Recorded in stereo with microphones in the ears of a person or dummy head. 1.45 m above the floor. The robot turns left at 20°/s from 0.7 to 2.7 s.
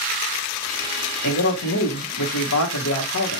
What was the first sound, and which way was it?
A man speaking, 55° left (ahead or behind).